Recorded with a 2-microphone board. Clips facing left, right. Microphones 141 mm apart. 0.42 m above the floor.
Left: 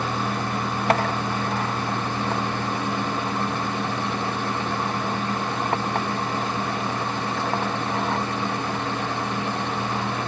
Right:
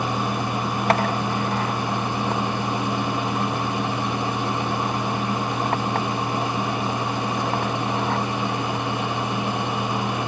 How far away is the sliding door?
No sliding door in this recording.